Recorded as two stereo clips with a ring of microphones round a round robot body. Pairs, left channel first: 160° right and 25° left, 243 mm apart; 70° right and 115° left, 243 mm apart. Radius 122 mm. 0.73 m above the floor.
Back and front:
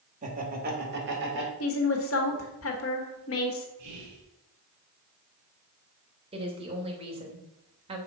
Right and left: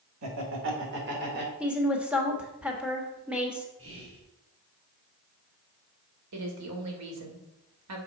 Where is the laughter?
85° left, 2 m; by 1.5 s 65° left, 3.5 m.